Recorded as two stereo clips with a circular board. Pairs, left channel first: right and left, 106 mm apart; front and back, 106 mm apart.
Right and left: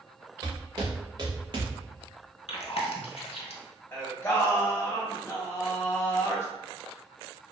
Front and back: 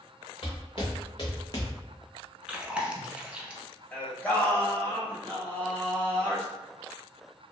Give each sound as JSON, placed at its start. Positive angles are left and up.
{"t": 0.4, "sound": "footsteps", "azimuth_deg": 35, "distance_m": 1.4}
{"t": 2.5, "sound": "chewing", "azimuth_deg": -100, "distance_m": 0.5}
{"t": 3.9, "sound": "singing", "azimuth_deg": -55, "distance_m": 0.7}